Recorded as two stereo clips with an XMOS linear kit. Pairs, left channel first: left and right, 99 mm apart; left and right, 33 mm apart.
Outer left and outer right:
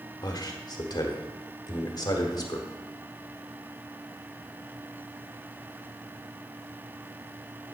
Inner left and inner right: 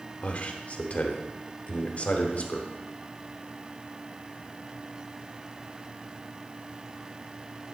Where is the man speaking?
45° left (ahead or behind), 1.2 m.